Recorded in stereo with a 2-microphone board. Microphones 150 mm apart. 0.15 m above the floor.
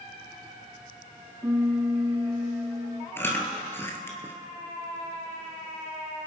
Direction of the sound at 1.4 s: 20° right (ahead or behind).